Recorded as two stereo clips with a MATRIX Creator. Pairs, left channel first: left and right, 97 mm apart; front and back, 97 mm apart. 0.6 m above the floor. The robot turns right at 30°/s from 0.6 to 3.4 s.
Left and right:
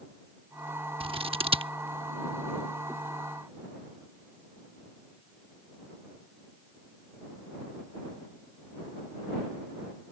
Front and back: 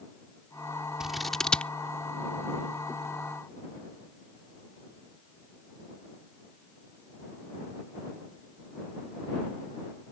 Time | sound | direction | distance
1.0 | scissors | 95° right | ?